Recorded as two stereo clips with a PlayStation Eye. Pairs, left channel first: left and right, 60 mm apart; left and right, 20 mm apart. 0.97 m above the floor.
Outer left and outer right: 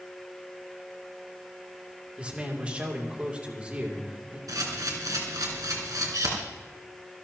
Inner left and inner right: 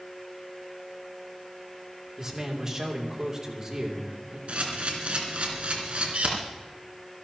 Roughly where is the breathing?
No breathing in this recording.